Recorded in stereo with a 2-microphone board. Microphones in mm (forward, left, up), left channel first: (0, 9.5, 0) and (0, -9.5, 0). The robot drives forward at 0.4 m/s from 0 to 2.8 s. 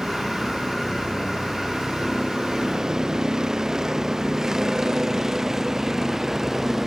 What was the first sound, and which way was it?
A vehicle, 40° right (ahead or behind).